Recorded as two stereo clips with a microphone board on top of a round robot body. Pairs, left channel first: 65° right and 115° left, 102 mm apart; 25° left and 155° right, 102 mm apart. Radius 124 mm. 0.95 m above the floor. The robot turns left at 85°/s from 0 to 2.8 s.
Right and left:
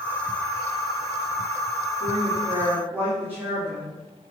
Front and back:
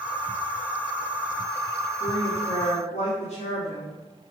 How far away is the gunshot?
I don't hear a gunshot.